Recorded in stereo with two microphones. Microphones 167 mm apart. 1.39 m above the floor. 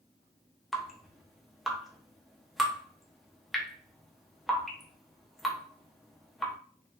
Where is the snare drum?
No snare drum in this recording.